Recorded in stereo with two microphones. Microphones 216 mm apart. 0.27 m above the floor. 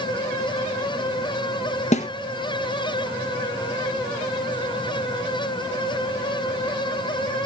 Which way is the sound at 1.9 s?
35° left (ahead or behind).